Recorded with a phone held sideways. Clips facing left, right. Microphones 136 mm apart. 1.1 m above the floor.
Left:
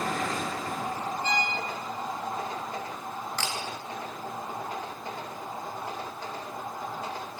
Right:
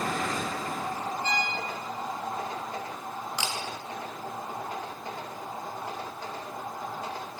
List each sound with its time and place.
1.2 s a violin: 15° left (ahead or behind), 3 m
3.4 s a camera shutter: 15° right (ahead or behind), 0.6 m